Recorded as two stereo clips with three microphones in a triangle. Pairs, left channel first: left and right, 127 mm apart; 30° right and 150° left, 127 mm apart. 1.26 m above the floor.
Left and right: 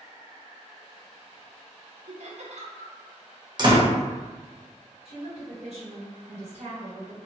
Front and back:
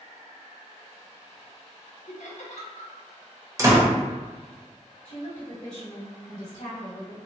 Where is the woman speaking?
55° right, 1.6 m.